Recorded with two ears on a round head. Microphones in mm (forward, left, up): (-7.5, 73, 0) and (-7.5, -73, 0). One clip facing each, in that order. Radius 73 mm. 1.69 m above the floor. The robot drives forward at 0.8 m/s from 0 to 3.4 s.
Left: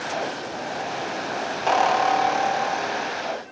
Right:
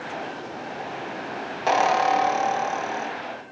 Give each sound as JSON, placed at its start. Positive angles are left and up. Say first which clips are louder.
{"t": 1.7, "sound": "a squeak", "louder": "even", "side_deg": -5, "distance_m": 0.7}